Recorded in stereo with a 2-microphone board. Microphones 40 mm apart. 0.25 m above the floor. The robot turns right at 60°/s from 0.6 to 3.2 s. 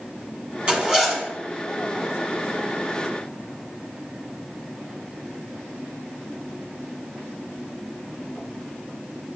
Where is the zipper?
35° right, 1.6 m; by 1.2 s straight ahead, 1.6 m.